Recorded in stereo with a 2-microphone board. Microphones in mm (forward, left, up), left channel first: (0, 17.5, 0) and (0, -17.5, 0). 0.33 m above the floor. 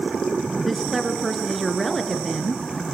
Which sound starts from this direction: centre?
A woman speaking, at 0.7 s.